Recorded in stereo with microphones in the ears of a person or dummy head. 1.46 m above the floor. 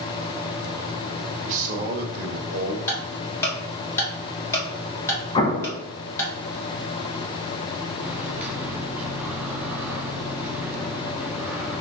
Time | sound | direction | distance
1.4 | a man speaking | 40° right (ahead or behind) | 1.4 m
2.9 | ticking | 15° left (ahead or behind) | 1.8 m
5.3 | an explosion | 30° left (ahead or behind) | 0.8 m
8.0 | a microwave | 5° right (ahead or behind) | 0.5 m